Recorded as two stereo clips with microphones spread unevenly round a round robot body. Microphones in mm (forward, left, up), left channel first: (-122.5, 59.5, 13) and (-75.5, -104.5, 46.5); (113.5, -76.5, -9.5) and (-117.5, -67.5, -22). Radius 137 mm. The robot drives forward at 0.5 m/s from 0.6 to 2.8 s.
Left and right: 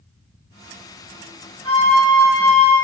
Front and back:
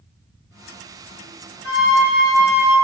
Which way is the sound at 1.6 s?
30° left.